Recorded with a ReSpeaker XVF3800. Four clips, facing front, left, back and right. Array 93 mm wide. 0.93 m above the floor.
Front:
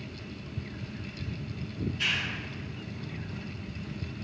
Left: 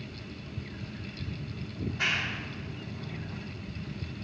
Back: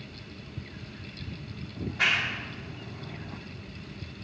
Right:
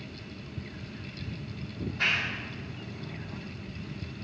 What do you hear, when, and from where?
1.8 s a clap: 170° left, 2.5 m